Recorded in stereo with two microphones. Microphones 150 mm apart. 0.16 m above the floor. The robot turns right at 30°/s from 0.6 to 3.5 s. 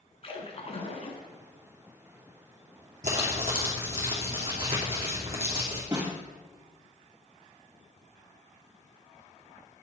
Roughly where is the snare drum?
Right.